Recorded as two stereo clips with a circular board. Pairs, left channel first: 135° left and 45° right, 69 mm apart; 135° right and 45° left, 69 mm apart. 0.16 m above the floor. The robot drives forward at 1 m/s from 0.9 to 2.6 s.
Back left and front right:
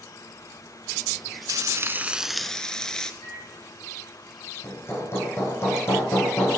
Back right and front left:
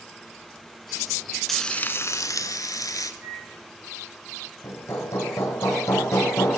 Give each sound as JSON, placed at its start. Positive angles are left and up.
{"t": 1.5, "sound": "frying", "azimuth_deg": -50, "distance_m": 0.7}
{"t": 3.2, "sound": "a microwave", "azimuth_deg": 100, "distance_m": 9.0}
{"t": 4.6, "sound": "hammering", "azimuth_deg": -175, "distance_m": 4.0}